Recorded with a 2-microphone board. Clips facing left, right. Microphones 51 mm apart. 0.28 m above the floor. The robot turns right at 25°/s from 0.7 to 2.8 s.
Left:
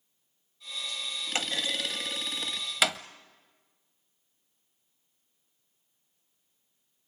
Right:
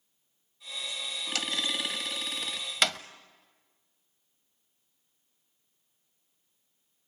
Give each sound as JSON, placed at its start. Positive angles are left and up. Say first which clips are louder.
{"t": 1.4, "sound": "a clunk", "louder": "left 1 dB", "side_deg": 30, "distance_m": 0.7}